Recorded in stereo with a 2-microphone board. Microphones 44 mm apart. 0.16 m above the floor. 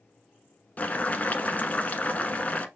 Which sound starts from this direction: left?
Boiling, at 0.8 s.